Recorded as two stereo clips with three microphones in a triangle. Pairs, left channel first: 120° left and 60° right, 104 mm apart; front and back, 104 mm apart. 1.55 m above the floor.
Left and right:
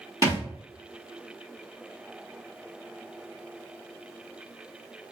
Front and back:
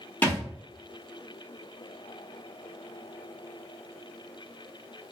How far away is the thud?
About 1.3 m.